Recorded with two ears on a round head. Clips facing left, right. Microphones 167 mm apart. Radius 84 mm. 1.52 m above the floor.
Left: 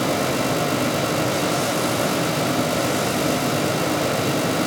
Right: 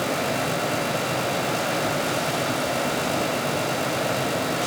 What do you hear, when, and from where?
Only background noise.